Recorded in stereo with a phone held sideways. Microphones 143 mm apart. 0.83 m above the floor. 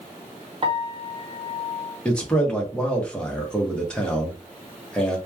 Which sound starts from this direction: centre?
A man speaking, at 2.0 s.